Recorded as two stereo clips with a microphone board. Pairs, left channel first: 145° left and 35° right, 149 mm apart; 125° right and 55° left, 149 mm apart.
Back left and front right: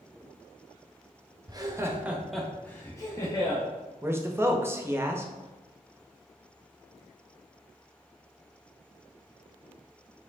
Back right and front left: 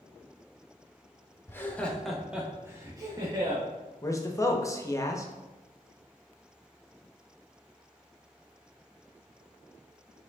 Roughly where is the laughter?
Ahead right.